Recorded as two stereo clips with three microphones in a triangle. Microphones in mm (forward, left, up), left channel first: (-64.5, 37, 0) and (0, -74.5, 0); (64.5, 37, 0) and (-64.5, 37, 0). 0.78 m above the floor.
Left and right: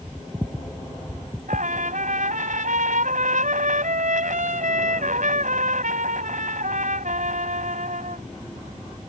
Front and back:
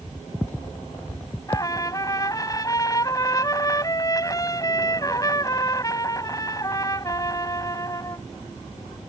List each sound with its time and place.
1.5 s a trumpet: 60° right